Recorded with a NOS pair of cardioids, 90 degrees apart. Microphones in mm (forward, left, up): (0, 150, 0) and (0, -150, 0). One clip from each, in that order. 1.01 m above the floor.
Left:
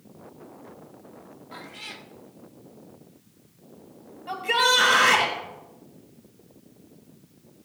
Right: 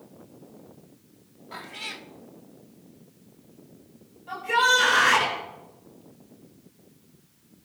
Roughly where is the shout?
Ahead left.